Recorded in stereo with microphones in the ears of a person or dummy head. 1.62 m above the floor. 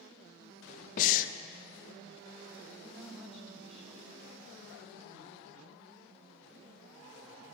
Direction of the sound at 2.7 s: 5° right (ahead or behind).